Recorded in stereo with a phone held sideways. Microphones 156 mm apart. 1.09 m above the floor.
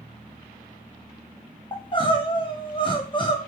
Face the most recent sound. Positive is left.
turn(degrees=30)  # may be behind; listen again after turning